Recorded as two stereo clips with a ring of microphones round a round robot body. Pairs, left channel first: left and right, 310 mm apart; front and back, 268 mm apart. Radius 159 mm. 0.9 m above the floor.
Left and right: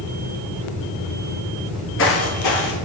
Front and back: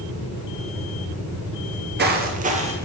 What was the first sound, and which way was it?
Footsteps, 155° left.